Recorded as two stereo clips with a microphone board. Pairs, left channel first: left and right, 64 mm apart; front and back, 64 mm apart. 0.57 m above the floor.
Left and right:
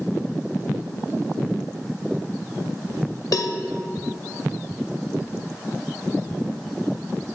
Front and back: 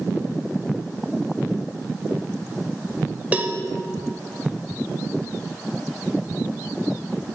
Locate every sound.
3.3 s a cowbell: 115° left, 0.7 m